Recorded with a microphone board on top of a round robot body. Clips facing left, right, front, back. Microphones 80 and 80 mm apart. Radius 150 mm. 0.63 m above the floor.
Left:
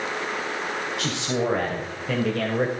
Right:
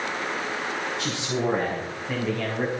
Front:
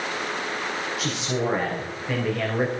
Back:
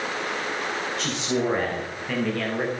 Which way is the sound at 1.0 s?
85° left.